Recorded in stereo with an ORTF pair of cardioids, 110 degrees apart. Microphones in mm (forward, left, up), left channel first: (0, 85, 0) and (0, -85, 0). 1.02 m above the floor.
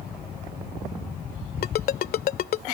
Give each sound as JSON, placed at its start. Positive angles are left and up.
{"t": 1.6, "sound": "a ringtone", "azimuth_deg": 60}